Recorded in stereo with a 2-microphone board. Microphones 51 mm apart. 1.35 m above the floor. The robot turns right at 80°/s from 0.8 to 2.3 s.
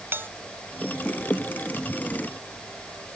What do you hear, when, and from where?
0.1 s a bell: 45° right (ahead or behind)